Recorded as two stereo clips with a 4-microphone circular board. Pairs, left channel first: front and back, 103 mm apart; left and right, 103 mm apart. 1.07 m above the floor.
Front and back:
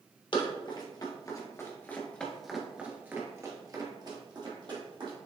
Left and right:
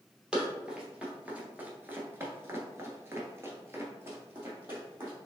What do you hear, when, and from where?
0.3 s running footsteps: 10° right, 1.7 m; by 5.1 s 155° right, 2 m